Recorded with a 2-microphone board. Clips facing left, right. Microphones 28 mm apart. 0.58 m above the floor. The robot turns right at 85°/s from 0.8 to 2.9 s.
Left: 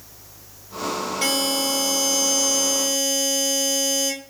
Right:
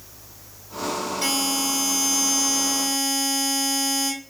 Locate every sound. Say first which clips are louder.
1.2 s a buzzer: left 3 dB; 80° left, 3 m; by 4.1 s 135° right, 3 m